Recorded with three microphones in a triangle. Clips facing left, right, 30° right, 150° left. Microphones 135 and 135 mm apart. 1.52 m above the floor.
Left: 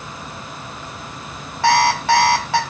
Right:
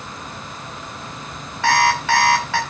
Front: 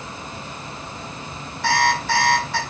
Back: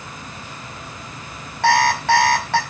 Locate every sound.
1.6 s an alarm clock: 140° left, 4 m